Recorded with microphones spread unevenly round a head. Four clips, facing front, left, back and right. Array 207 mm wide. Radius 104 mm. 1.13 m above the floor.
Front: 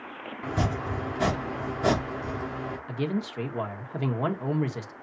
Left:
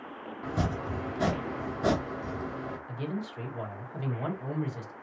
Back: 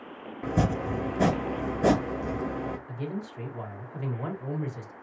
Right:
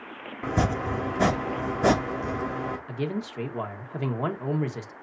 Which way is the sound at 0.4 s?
140° right.